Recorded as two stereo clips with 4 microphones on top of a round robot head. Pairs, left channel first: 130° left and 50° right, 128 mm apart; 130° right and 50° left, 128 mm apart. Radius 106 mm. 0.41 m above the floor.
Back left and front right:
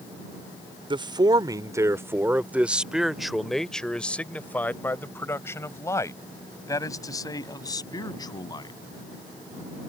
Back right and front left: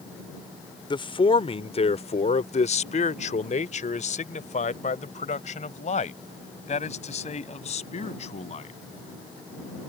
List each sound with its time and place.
0.9 s a man speaking: 90° right; by 8.7 s 170° right